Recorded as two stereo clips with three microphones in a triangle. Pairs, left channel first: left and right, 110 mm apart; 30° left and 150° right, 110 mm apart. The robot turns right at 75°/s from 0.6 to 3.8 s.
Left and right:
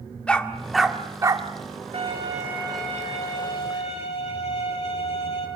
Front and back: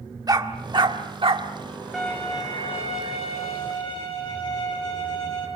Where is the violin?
60° right, 6.5 m; by 5.5 s 75° left, 6.5 m.